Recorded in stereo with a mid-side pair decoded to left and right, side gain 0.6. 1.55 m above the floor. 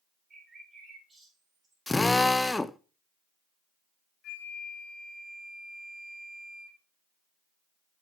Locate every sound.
0.3 s a bird: 25° right, 3 m
1.9 s a drill: 10° left, 0.5 m
4.2 s a flute: 55° left, 2.5 m